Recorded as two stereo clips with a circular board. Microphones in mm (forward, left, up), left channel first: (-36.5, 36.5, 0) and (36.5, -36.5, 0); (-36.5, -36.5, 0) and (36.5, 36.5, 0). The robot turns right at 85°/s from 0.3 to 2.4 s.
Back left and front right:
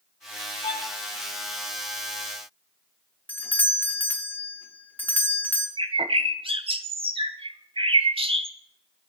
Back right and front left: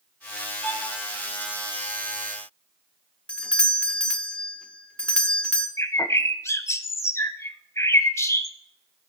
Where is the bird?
75° right, 0.7 m.